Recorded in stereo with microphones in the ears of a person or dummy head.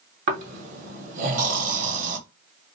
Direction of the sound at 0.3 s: 45° right (ahead or behind).